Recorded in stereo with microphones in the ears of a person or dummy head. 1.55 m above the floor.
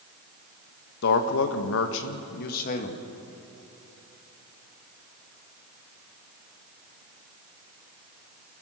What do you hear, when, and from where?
1.0 s a man speaking: 65° left (ahead or behind), 1.6 m; by 3.0 s 45° left (ahead or behind), 2 m